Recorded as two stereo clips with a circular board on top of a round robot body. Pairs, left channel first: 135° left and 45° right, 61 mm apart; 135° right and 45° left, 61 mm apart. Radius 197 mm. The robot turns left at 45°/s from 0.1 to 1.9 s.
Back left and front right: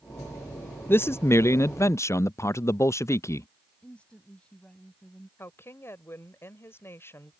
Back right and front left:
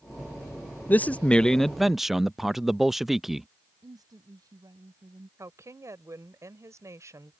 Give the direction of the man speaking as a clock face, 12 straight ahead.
6 o'clock.